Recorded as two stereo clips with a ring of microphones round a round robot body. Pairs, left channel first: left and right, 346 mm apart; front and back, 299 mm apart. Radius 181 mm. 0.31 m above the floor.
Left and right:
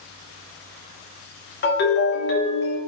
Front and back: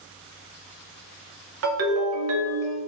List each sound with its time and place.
1.6 s a ringtone: 145° left, 0.8 m